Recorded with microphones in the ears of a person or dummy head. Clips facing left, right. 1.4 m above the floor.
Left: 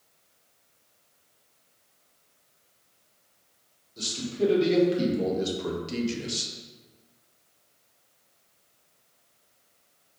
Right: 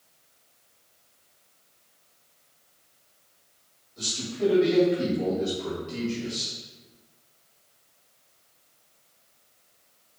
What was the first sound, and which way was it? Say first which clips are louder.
A man speaking: left 2 dB; 30° left (ahead or behind).